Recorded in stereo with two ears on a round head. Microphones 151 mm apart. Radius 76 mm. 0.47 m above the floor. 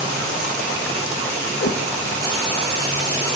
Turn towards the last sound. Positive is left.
turn(degrees=60)  # may be behind; listen again after turning